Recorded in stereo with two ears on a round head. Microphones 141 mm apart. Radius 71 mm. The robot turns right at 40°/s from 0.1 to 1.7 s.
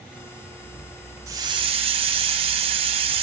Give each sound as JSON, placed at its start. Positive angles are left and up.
{"t": 1.3, "sound": "a hiss", "side_deg": -20, "distance_m": 0.9}